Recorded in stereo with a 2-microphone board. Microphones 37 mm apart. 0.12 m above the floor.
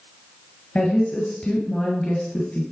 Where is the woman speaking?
35° left (ahead or behind), 1.7 m.